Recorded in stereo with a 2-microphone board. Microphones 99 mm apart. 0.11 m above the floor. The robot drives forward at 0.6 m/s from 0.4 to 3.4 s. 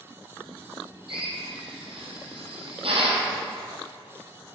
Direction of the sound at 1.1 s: 60° right (ahead or behind).